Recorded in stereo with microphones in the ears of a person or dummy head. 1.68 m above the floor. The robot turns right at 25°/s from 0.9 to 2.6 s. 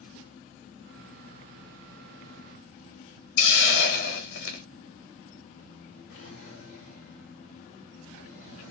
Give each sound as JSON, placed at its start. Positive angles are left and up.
{"t": 3.4, "sound": "a hiss", "side_deg": 80, "distance_m": 1.0}
{"t": 6.1, "sound": "a drawer", "side_deg": 60, "distance_m": 1.9}